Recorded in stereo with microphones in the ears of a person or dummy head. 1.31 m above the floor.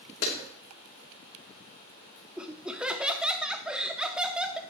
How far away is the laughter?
About 0.6 m.